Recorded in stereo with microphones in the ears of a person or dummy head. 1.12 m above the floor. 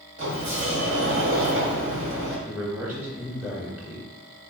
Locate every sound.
0.2 s a sliding door: 50° right (ahead or behind), 2.0 m
2.5 s a man speaking: 10° right (ahead or behind), 2 m